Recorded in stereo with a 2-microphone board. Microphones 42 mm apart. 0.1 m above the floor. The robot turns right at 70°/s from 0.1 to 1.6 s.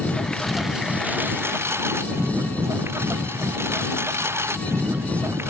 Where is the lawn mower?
150° left; by 5.5 s 105° right.